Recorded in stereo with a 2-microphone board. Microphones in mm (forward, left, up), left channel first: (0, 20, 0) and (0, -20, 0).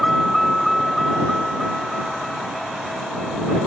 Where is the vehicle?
5° left (ahead or behind); by 3.7 s 5° right (ahead or behind).